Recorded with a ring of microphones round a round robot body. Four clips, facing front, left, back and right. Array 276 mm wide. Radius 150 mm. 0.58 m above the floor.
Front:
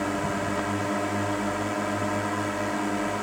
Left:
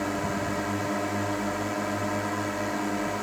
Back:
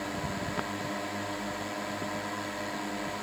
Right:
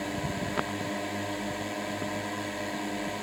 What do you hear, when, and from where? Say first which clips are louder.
0.0 s a drone: left 4 dB, front 7 dB; 25° left